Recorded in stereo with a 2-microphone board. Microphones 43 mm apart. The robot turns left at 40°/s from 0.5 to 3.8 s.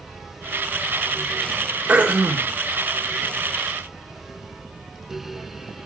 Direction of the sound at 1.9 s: 30° right (ahead or behind).